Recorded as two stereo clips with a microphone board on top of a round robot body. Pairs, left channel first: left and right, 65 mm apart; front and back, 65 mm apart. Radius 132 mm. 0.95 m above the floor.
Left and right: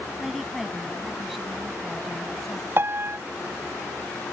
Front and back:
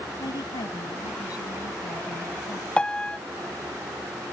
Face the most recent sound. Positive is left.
turn(degrees=-70)